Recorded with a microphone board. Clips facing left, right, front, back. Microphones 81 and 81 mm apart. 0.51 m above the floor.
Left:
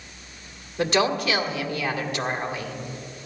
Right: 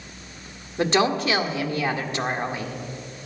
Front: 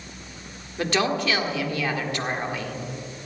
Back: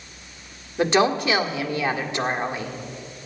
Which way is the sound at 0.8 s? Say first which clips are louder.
Right 1 dB, back 4 dB; 120° right.